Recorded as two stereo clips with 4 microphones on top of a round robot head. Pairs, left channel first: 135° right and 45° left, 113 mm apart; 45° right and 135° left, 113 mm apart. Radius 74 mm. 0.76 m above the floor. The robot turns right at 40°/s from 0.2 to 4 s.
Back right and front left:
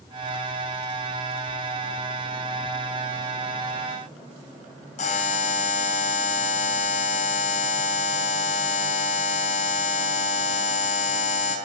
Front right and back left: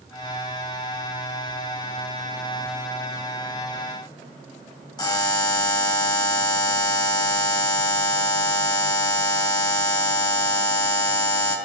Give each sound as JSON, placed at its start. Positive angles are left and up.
{"t": 5.0, "sound": "a buzzer", "azimuth_deg": -100, "distance_m": 4.0}